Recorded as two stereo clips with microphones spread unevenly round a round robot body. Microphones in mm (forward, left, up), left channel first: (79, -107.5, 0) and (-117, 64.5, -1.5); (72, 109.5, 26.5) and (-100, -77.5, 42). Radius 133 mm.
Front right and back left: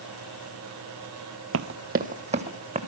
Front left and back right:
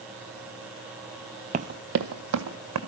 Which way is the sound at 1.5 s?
170° left.